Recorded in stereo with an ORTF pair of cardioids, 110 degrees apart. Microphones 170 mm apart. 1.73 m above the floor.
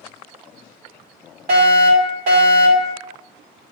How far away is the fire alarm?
About 5 m.